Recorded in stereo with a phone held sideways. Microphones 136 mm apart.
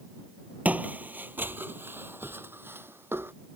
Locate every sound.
0.7 s footsteps: 10° right (ahead or behind); by 3.3 s 15° right (ahead or behind)